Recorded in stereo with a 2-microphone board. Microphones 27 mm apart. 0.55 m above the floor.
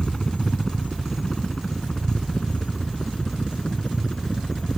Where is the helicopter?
20° left (ahead or behind); by 4.8 s 30° left (ahead or behind).